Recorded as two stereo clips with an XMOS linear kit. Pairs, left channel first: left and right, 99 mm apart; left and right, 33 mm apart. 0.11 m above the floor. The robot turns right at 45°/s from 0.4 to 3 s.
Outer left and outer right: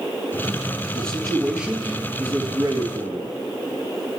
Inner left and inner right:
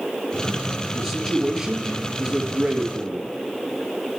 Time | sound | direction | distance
0.9 | a man speaking | 160° left | 1.9 m